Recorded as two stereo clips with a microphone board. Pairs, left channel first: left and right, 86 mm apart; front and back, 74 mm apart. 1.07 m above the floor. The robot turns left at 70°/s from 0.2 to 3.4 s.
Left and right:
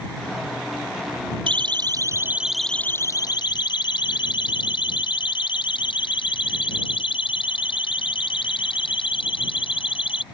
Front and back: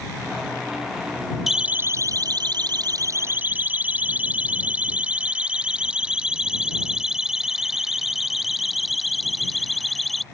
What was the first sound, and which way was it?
A siren, 95° right.